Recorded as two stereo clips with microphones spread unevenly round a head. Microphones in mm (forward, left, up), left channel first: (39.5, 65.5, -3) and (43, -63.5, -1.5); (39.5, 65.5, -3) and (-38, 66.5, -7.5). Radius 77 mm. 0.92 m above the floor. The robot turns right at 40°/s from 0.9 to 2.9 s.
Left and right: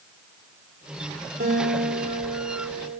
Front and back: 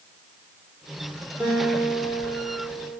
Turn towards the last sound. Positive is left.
turn(degrees=-30)